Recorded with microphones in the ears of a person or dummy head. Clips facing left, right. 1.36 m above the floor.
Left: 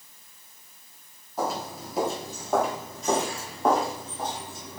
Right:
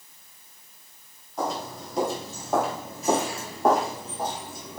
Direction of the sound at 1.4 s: 5° left (ahead or behind).